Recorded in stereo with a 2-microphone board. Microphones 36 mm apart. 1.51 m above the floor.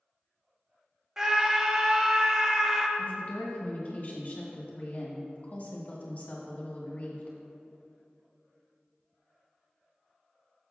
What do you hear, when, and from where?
1.2 s a scream: 15° right (ahead or behind), 0.8 m
3.0 s a woman speaking: 45° left (ahead or behind), 1.7 m